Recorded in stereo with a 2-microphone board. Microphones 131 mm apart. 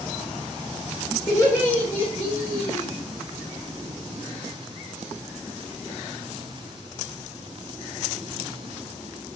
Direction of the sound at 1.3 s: 25° left (ahead or behind).